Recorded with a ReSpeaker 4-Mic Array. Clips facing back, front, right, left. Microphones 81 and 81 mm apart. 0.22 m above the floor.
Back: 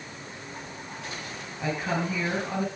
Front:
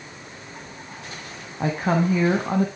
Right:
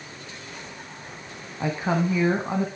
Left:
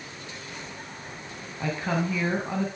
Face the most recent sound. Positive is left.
turn(degrees=-25)